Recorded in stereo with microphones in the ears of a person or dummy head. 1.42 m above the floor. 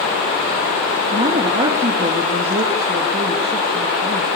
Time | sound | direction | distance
1.1 | a woman speaking | 35° right (ahead or behind) | 2 m